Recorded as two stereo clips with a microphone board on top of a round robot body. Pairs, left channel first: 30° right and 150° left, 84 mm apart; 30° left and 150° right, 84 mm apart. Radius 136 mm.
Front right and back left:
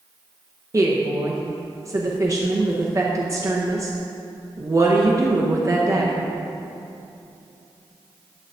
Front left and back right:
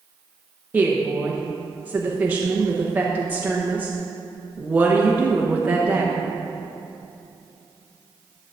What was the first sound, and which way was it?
A woman speaking, 150° left.